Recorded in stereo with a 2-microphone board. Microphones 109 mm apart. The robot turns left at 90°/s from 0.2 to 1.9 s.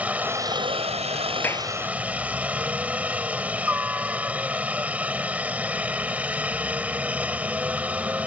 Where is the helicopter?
15° right; by 8.3 s 165° right.